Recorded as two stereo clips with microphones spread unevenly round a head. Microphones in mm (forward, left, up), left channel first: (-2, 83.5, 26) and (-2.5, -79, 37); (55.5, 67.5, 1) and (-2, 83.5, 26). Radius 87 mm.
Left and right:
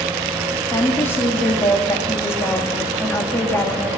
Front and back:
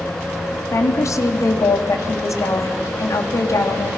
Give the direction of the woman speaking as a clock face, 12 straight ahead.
12 o'clock.